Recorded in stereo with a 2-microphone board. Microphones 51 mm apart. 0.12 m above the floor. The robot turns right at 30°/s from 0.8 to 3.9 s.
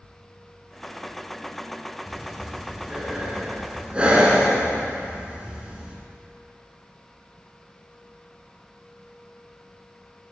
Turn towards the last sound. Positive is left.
turn(degrees=-20)  # may be behind; listen again after turning